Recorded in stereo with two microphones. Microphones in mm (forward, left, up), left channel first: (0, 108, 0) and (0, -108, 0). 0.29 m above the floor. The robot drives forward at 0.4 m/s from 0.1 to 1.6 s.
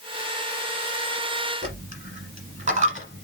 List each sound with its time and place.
1.6 s a dropped coin: 35° right (ahead or behind), 1.3 m